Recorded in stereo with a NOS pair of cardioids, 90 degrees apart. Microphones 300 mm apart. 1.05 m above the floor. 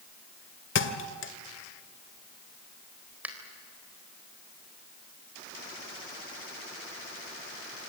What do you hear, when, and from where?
0.8 s a thud: 40° left, 2 m
3.2 s a finger snap: 5° right, 4 m